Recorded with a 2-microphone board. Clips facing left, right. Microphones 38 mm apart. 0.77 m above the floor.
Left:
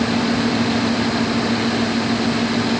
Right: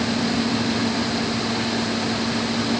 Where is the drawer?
No drawer in this recording.